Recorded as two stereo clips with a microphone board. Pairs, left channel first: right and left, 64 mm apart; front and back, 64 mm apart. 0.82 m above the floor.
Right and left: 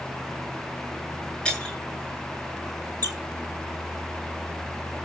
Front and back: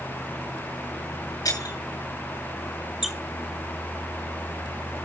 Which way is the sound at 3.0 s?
95° left.